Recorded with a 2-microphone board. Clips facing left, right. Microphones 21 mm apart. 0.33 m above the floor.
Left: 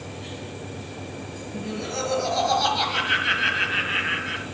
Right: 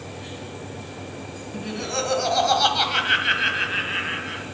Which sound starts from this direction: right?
Laughter, at 1.5 s.